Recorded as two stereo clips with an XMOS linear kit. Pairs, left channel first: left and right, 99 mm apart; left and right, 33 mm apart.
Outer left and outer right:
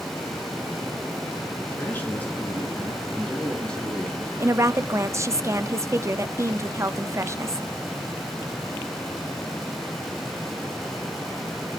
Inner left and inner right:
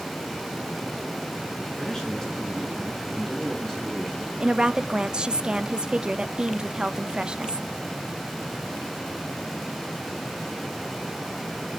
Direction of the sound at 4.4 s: 30° right (ahead or behind).